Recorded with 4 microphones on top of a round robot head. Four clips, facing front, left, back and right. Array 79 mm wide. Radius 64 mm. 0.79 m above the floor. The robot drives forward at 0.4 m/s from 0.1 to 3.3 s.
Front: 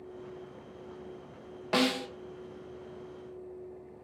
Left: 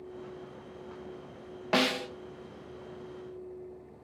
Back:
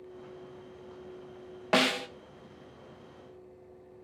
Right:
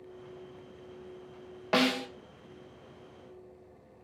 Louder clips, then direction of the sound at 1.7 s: Right 1 dB, back 1 dB; straight behind.